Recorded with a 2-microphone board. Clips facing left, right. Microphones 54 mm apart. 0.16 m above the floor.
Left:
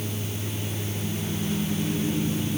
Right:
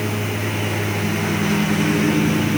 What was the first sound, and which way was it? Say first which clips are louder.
A lawn mower: right 10 dB; 80° right.